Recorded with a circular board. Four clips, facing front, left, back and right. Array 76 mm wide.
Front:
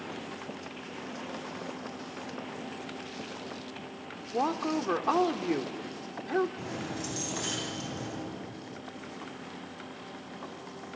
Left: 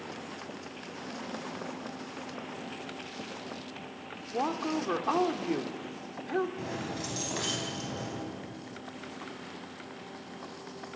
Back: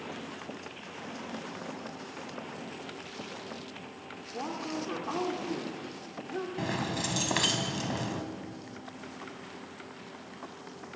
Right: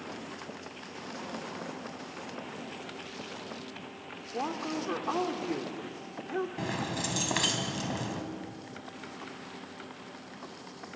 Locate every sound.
4.3 s a woman speaking: 25° left, 1.3 m
6.6 s keys jangling: 140° right, 3 m